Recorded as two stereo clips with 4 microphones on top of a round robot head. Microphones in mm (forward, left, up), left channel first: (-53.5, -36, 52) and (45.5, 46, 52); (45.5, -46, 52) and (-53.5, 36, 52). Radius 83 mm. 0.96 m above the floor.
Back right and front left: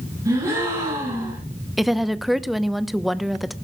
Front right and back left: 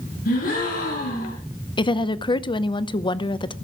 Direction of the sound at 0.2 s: 30° right.